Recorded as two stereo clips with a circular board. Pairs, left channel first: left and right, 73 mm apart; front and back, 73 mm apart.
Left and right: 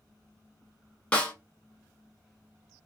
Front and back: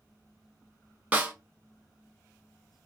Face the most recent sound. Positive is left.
turn(degrees=140)